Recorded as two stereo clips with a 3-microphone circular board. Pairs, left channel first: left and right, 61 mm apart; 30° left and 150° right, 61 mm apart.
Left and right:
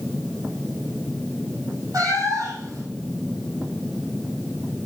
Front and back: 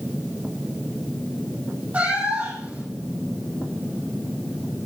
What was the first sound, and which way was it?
A cat meowing, 85° right.